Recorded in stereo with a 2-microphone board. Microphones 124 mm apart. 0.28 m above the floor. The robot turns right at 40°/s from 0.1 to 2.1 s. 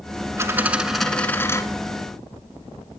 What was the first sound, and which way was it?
A dropped coin, 25° right.